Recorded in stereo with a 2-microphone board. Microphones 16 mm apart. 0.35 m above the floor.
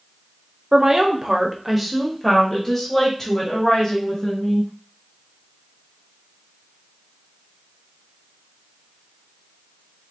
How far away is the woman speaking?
About 1.1 m.